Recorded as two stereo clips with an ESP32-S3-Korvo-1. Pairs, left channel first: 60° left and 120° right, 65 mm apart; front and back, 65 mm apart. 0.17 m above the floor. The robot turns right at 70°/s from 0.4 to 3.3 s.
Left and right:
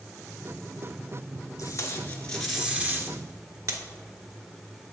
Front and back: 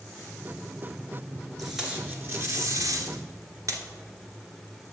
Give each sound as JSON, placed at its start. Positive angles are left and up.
{"t": 1.6, "sound": "tape being pulled", "azimuth_deg": 85, "distance_m": 1.2}